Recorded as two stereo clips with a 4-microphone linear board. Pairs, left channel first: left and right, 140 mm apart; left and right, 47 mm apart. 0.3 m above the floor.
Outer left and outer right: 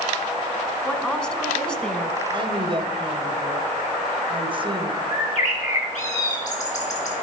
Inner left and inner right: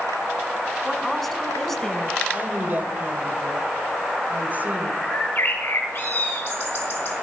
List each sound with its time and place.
0.8 s a woman speaking: 10° left (ahead or behind), 1.1 m
2.3 s a woman speaking: 35° right (ahead or behind), 1.2 m
5.1 s a bird: 60° left (ahead or behind), 2 m